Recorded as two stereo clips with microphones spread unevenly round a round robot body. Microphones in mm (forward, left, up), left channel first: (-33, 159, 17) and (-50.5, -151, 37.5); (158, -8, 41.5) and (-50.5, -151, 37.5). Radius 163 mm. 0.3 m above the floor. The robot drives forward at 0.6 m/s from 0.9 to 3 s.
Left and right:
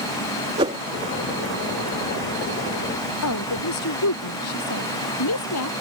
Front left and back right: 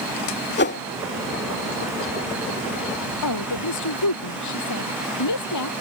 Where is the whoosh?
15° right.